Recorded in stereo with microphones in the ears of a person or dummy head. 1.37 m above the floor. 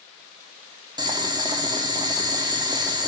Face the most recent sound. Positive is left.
turn(degrees=-20)  # may be behind; listen again after turning